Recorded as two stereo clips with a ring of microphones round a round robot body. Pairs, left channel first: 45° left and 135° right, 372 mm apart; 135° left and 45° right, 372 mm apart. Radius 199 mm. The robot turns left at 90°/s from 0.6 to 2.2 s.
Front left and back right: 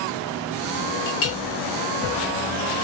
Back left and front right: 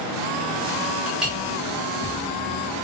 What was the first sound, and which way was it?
A clink, 60° left.